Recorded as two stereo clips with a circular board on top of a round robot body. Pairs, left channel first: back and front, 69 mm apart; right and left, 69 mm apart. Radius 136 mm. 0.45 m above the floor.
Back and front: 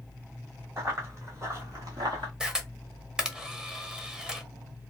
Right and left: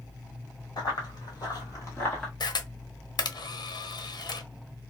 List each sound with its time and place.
0.8 s running footsteps: 55° right, 1.6 m; by 2.3 s 10° right, 0.5 m
2.4 s a camera shutter: 80° right, 0.8 m